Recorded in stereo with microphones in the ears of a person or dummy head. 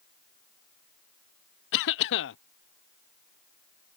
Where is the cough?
65° left (ahead or behind).